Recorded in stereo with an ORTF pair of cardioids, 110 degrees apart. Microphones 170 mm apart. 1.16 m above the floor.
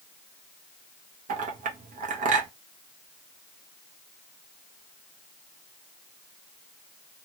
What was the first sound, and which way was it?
A clink, 50° right.